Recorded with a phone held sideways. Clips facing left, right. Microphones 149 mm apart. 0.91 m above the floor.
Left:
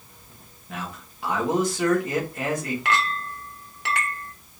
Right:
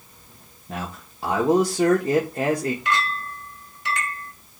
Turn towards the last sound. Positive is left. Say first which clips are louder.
# even
turn(degrees=70)  # may be behind; listen again after turning